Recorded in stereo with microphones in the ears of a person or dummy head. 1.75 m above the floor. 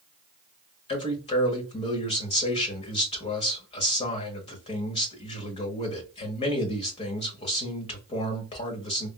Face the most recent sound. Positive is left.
turn(degrees=35)  # may be behind; listen again after turning